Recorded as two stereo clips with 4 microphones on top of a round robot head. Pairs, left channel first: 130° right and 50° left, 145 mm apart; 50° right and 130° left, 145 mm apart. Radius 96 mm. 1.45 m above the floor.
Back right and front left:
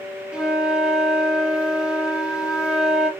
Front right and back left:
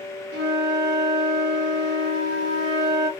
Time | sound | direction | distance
0.3 | a flute | 135° left | 1.0 m